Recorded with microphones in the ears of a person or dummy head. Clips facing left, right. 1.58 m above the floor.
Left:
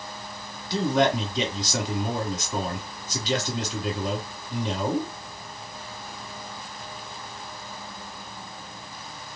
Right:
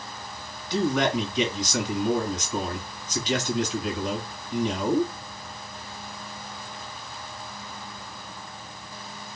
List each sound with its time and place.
0.7 s a man speaking: 35° left (ahead or behind), 1.6 m